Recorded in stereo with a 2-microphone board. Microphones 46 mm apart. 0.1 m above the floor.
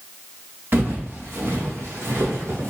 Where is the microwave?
I don't hear a microwave.